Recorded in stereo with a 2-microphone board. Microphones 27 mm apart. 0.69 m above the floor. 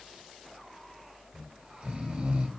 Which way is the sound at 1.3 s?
40° right (ahead or behind).